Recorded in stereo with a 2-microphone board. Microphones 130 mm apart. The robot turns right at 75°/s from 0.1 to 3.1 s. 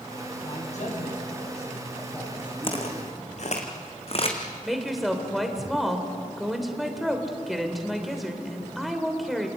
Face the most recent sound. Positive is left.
turn(degrees=0)  # may be behind; listen again after turning